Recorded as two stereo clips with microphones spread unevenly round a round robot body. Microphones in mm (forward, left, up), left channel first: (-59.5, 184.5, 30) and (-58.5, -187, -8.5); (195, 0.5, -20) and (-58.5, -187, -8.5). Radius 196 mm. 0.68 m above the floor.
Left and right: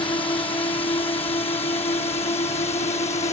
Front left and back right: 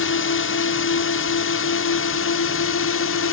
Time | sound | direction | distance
0.0 | a drone | 10° left | ?